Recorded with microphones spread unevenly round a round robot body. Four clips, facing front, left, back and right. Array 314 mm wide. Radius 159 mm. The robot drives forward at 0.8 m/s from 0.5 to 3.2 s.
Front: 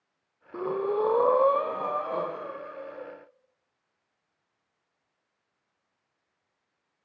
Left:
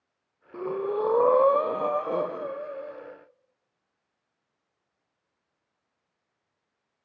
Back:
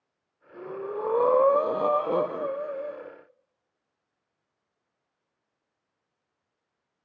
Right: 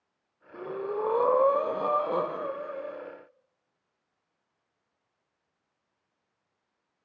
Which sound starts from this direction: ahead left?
Breathing, at 0.5 s.